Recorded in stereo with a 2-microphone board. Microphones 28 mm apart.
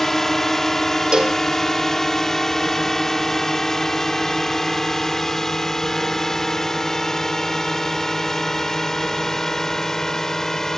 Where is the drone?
10° left (ahead or behind); by 10.8 s 15° left (ahead or behind).